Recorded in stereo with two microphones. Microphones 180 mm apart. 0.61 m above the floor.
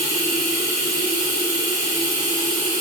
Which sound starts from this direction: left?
Running water, at 0.0 s.